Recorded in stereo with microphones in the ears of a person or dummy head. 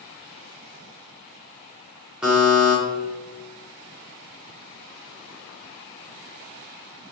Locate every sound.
2.2 s a buzzer: 5° right (ahead or behind), 0.6 m